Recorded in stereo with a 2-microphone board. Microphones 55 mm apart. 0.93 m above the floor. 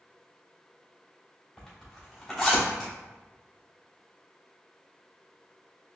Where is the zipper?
Centre (ahead or behind), 1.7 m.